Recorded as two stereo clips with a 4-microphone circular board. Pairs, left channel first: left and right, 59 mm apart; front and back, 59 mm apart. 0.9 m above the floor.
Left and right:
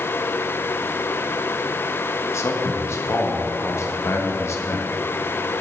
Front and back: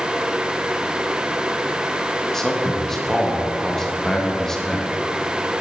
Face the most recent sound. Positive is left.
turn(degrees=80)